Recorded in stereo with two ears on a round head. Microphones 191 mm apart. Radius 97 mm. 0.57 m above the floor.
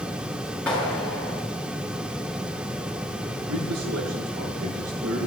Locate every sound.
0.7 s a clap: 5° left (ahead or behind), 7 m
3.5 s a man speaking: 85° right, 7 m